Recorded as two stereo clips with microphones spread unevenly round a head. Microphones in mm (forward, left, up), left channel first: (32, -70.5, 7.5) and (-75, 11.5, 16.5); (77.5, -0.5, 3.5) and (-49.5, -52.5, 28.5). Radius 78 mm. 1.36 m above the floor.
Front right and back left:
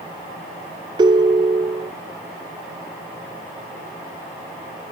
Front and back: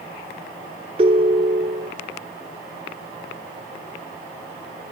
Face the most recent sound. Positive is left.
turn(degrees=-175)